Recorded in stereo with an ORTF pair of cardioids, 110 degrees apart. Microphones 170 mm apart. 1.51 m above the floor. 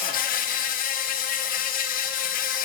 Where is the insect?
60° left, 0.8 m.